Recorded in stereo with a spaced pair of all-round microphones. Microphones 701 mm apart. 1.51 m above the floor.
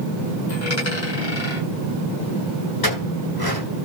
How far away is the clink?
About 8 m.